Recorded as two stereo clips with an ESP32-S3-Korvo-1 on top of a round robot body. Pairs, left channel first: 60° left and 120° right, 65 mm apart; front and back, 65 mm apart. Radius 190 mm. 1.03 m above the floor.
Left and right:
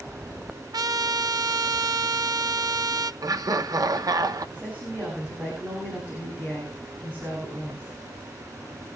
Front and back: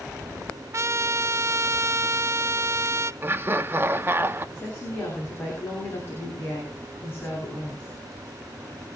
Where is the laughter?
125° right, 1.3 m.